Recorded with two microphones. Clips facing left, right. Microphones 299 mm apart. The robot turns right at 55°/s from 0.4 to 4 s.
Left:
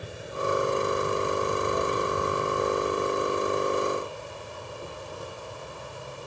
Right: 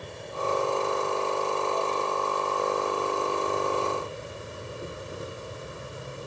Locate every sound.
0.0 s an insect: 5° left; by 6.3 s 155° right